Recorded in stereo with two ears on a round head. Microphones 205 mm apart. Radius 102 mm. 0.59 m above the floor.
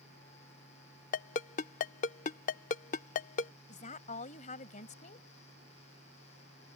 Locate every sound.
1.1 s a ringtone: 35° left (ahead or behind)
3.7 s a woman speaking: 35° left (ahead or behind)